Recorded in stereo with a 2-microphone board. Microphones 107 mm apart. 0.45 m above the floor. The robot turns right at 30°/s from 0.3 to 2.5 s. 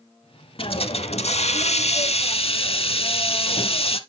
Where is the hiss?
60° left, 0.6 m; by 4.0 s 115° left, 0.6 m.